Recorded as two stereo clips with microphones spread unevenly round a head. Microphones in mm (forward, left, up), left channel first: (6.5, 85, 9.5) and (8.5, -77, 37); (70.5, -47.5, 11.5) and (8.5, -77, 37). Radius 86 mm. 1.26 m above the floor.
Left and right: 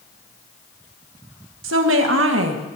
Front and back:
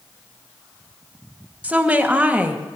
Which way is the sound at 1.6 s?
85° right.